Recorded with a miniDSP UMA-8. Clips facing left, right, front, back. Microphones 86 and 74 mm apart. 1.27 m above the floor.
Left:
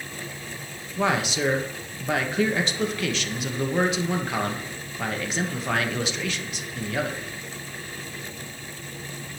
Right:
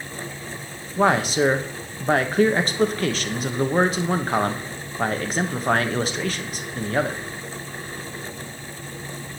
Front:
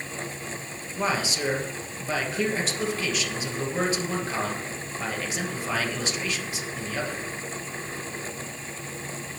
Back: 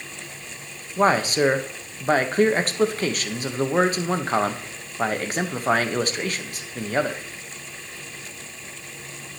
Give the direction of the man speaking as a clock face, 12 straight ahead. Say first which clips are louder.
Right 5 dB, back 8 dB; 5 o'clock.